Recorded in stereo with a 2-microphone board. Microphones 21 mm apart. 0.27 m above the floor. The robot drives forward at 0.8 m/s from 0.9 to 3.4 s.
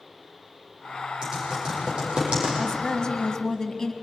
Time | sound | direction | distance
1.2 | typing on a keyboard | 35° right (ahead or behind) | 10 m
2.6 | a woman speaking | 30° left (ahead or behind) | 1.8 m